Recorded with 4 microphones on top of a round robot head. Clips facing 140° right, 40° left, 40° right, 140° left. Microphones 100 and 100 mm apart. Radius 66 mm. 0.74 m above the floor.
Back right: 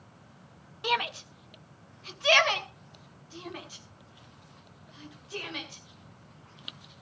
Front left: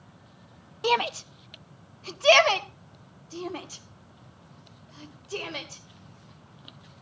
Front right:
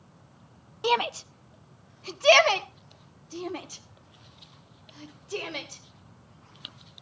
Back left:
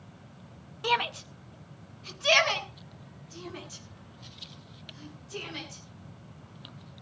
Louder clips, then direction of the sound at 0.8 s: Front left 5 dB, front right 3 dB; 10° left.